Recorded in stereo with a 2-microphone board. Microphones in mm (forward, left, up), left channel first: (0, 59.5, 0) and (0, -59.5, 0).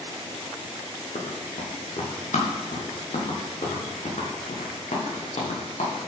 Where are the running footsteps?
65° left (ahead or behind), 4.5 m; by 6.0 s 85° left, 6 m.